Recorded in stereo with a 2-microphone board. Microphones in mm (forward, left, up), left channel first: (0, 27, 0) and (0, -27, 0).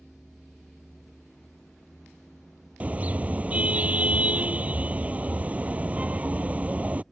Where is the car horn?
30° right (ahead or behind).